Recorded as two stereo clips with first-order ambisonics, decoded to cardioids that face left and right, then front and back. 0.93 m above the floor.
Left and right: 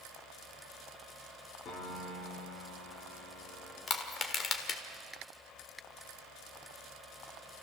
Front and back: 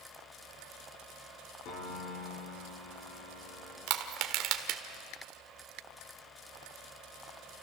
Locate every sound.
1.6 s a piano: 35° left, 3 m
3.9 s crushing: 150° left, 1.5 m